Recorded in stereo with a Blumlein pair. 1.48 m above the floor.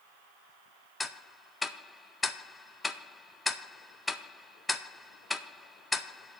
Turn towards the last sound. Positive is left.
turn(degrees=10)